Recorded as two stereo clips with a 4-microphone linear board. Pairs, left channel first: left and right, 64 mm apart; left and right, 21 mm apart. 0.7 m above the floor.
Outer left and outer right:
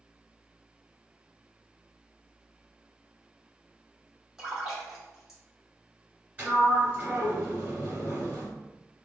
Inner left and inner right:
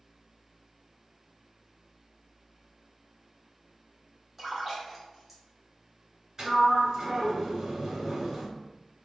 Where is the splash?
10° right (ahead or behind), 1.8 m.